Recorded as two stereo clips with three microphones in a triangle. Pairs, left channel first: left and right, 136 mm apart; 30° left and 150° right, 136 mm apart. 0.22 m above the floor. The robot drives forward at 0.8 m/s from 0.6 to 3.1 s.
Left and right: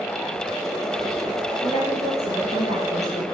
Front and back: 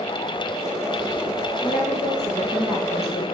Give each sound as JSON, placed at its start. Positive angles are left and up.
{"t": 1.6, "sound": "a woman speaking", "azimuth_deg": 50, "distance_m": 4.0}